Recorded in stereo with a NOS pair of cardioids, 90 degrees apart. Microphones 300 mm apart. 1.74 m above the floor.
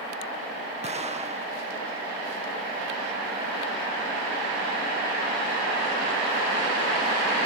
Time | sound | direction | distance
0.8 | an explosion | 20° right | ?